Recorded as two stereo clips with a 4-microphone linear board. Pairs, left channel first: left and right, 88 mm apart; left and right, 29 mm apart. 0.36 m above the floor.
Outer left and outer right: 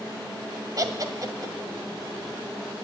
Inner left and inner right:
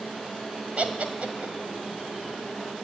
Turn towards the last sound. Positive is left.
turn(degrees=-45)  # may be behind; listen again after turning